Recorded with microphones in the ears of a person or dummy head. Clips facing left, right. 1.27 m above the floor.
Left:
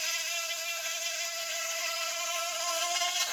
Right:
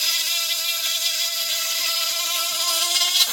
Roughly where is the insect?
Right.